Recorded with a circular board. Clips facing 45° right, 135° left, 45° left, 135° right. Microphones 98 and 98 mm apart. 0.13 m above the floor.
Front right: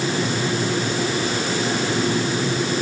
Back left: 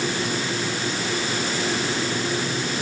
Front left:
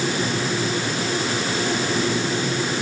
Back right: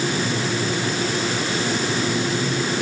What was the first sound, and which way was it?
Only background noise.